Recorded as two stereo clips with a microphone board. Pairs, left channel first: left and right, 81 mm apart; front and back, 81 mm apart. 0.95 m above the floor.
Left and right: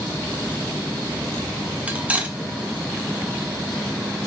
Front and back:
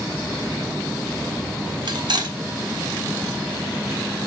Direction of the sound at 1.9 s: 160° right.